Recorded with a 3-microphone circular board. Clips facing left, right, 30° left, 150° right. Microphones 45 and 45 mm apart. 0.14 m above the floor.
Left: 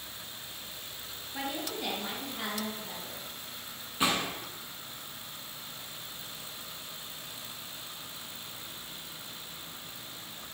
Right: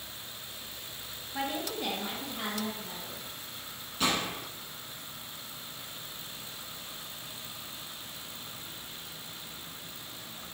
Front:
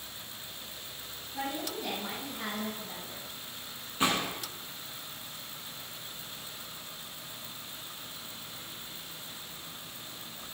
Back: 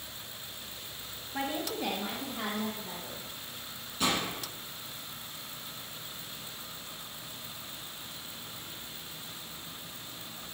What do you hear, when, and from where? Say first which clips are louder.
1.3 s a woman speaking: right 2 dB, back 2 dB; 175° right, 1.9 m; by 3.2 s 170° left, 3.5 m
4.0 s a gunshot: left 1 dB, front 1 dB; 45° left, 1.7 m